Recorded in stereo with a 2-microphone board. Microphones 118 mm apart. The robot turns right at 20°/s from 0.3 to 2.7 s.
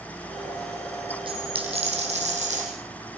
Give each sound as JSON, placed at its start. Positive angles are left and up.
{"t": 1.3, "sound": "a dropped coin", "side_deg": -45, "distance_m": 5.5}